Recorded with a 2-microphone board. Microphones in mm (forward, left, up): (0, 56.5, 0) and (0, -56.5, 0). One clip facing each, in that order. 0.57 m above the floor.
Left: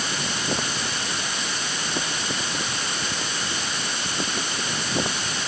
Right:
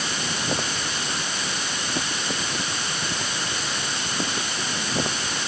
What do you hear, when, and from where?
Only background noise.